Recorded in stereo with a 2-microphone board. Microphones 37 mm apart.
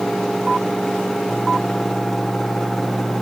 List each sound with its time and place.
Only background noise.